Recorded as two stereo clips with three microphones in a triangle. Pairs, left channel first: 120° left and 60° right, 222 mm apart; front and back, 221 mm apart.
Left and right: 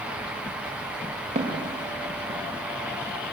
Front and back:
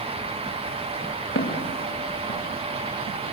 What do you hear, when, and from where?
1.4 s footsteps: 5° right, 5.5 m; by 2.4 s straight ahead, 5.5 m